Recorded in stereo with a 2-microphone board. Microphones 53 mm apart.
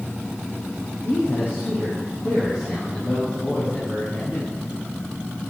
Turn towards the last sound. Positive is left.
turn(degrees=60)  # may be behind; listen again after turning